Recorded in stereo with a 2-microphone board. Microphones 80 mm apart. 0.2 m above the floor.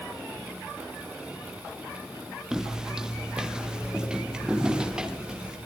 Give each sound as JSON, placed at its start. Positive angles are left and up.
{"t": 2.5, "sound": "footsteps", "side_deg": -5, "distance_m": 2.5}